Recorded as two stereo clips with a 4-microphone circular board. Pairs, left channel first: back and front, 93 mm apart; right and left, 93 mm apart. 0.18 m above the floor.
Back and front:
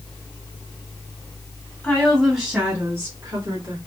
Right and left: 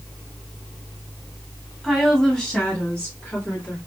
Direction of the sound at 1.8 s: 175° left.